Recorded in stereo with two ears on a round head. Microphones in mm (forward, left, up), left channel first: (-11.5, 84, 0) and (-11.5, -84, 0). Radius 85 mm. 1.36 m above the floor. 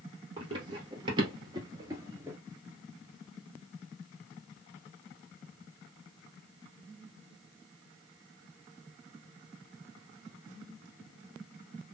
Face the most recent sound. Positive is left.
turn(degrees=-15)  # may be behind; listen again after turning